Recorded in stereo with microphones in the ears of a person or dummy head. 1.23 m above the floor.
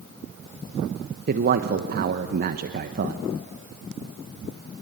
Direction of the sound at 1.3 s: 50° right (ahead or behind).